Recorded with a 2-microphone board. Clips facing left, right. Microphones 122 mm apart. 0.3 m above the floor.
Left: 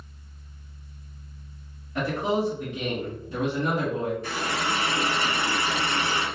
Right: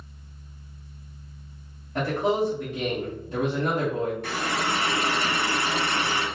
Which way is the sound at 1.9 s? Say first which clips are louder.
Right 2 dB; 40° right (ahead or behind).